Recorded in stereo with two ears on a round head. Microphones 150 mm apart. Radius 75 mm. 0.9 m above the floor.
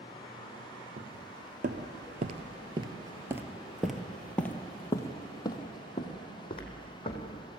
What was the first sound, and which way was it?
Footsteps, 60° right (ahead or behind).